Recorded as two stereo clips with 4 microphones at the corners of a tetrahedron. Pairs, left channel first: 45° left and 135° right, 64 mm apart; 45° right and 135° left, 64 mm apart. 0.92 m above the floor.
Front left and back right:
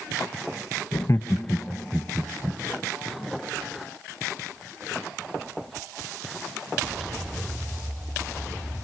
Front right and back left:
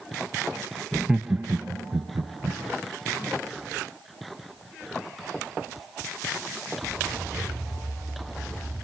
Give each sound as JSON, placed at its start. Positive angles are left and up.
{"t": 0.9, "sound": "laughter", "azimuth_deg": 40, "distance_m": 0.6}